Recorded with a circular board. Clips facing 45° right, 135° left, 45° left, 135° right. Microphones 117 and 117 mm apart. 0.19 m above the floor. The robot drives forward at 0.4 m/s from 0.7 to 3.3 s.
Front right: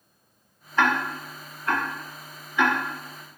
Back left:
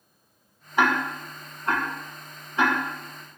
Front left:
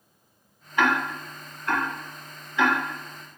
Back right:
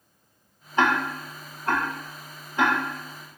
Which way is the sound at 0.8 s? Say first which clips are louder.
Even, back right 1 dB; 160° right.